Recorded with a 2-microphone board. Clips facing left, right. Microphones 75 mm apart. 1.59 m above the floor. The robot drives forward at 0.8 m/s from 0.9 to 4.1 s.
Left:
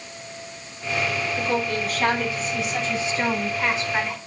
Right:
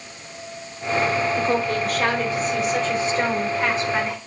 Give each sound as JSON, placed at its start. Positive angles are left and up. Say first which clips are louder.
{"t": 1.4, "sound": "a woman speaking", "louder": "right 3 dB", "side_deg": -60, "distance_m": 4.0}